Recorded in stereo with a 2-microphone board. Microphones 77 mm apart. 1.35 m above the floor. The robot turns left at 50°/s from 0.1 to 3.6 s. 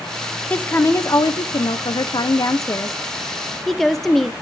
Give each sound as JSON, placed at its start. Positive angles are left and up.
{"t": 0.5, "sound": "a woman speaking", "azimuth_deg": 160, "distance_m": 0.6}